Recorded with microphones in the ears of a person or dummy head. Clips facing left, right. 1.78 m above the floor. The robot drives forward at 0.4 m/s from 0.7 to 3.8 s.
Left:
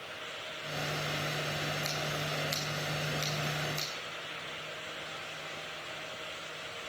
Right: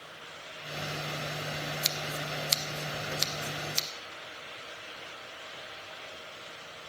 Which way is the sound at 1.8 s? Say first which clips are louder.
Left 1 dB; 45° right (ahead or behind).